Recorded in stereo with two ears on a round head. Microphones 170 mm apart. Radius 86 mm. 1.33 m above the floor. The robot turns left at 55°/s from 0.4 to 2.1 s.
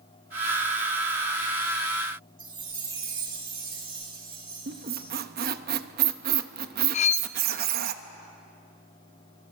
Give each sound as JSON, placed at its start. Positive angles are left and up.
{"t": 2.4, "sound": "a chime", "side_deg": -25, "distance_m": 4.5}
{"t": 4.7, "sound": "a squeak", "side_deg": -50, "distance_m": 0.8}
{"t": 6.9, "sound": "cutlery clinking", "side_deg": 35, "distance_m": 0.5}